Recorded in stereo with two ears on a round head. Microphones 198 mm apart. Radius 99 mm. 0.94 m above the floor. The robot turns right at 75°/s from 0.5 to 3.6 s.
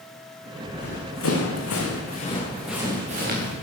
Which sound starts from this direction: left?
Running footsteps, at 0.7 s.